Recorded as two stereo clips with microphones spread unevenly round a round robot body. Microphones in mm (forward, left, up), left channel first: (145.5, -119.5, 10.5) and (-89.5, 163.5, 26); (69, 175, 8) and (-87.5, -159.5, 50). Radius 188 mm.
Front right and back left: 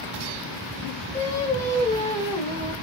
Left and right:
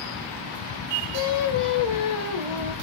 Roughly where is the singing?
Ahead left.